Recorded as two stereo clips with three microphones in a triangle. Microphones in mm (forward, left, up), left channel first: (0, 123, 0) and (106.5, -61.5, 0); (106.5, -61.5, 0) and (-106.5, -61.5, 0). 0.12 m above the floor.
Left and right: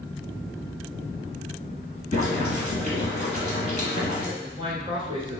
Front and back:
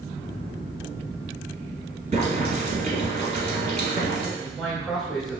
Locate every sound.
2.1 s boiling: 145° left, 2.0 m
4.4 s a man speaking: 95° right, 1.1 m